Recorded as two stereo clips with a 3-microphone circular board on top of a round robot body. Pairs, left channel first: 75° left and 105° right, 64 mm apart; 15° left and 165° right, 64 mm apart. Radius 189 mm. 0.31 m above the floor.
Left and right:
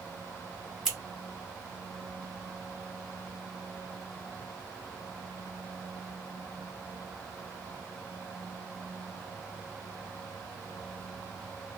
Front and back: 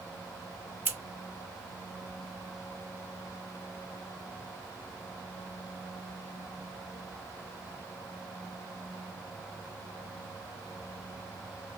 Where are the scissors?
175° left, 1.6 m.